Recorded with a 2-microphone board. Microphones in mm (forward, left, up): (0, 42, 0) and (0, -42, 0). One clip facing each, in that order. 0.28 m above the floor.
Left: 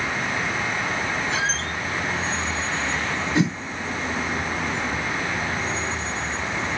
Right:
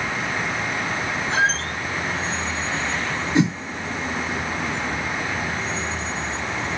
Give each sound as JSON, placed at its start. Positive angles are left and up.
{"t": 1.3, "sound": "a squeak", "side_deg": -40, "distance_m": 1.3}
{"t": 3.4, "sound": "a whoosh", "side_deg": -20, "distance_m": 4.0}